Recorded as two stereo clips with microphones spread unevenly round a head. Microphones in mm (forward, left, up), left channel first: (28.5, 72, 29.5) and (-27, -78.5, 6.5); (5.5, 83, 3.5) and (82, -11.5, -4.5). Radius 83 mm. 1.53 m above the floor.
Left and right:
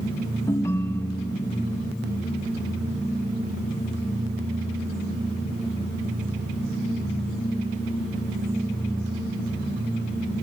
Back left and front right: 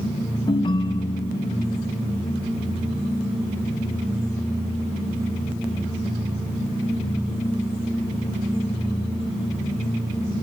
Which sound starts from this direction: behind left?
A ringtone, at 0.5 s.